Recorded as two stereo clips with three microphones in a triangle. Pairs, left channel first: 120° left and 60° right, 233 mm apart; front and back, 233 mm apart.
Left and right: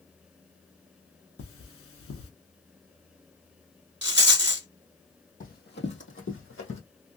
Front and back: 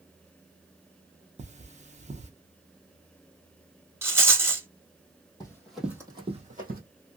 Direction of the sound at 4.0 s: 100° right.